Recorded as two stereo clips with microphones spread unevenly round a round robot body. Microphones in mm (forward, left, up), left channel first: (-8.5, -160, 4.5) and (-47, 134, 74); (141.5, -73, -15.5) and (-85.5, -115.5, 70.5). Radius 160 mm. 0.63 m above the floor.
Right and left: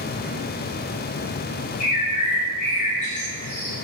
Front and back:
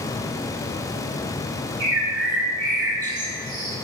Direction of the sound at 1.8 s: 145° right.